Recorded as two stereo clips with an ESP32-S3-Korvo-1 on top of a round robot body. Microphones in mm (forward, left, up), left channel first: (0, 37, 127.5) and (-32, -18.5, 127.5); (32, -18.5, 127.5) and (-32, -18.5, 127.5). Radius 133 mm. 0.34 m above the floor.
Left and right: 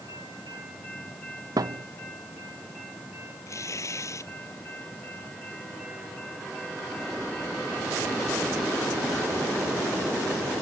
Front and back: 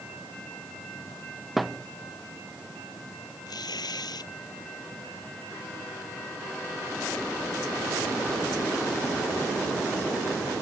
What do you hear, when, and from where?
1.6 s a thud: 95° right
3.5 s tearing paper: 15° left